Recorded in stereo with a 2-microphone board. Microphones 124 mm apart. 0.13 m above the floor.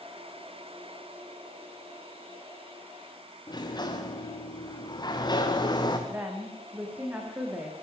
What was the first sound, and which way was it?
A sliding door, 35° left (ahead or behind).